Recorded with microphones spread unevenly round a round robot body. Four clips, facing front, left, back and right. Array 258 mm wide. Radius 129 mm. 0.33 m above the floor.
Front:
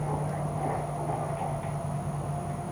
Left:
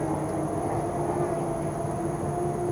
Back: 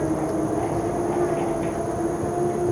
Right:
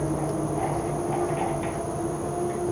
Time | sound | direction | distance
0.0 | an insect | 175° left | ?